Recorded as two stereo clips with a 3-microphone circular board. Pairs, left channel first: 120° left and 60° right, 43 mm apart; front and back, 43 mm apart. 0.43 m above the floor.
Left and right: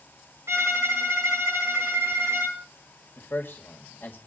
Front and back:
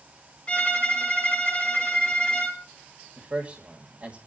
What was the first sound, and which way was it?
A violin, 65° right.